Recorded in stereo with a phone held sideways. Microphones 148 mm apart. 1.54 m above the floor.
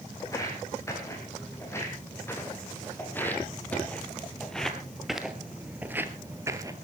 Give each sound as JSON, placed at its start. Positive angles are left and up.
{"t": 0.2, "sound": "footsteps", "side_deg": 20, "distance_m": 5.0}